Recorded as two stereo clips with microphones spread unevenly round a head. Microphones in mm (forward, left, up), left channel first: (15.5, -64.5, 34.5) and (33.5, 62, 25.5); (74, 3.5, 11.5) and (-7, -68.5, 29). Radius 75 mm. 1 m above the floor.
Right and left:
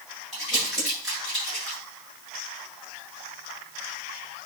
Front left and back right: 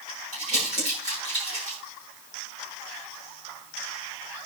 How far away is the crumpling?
About 9.5 m.